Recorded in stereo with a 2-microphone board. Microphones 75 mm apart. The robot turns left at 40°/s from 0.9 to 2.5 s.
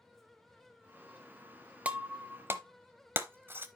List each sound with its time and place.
1.9 s breaking glass: 20° right (ahead or behind), 0.7 m; by 3.7 s 30° right (ahead or behind), 0.7 m